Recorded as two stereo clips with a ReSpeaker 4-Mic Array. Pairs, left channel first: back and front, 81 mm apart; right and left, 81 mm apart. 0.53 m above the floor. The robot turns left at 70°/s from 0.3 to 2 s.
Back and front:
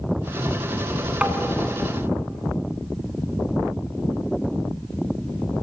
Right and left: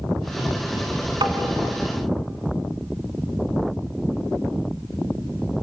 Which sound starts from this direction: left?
Tapping, at 1.2 s.